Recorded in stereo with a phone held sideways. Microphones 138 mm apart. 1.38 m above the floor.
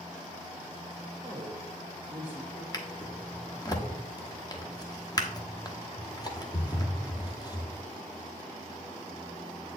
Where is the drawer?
30° left (ahead or behind), 0.8 m.